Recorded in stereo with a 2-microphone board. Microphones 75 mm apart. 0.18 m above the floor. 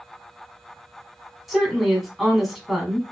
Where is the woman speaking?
Centre (ahead or behind), 1.2 m.